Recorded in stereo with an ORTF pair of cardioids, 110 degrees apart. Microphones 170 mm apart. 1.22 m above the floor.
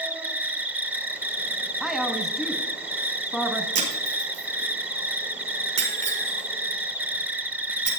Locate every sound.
0.0 s an insect: 10° right, 0.9 m
1.8 s a woman speaking: straight ahead, 1.0 m
3.8 s breaking glass: 45° right, 5.5 m